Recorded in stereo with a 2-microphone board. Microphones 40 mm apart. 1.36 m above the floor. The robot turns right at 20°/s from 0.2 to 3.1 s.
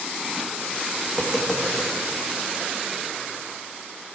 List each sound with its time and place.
1.1 s tapping: 5° left (ahead or behind), 1.7 m; by 1.9 s 25° left (ahead or behind), 1.7 m